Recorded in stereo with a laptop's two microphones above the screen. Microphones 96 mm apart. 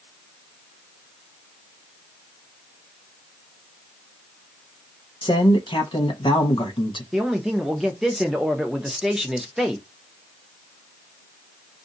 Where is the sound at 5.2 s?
60° left (ahead or behind), 1.0 m.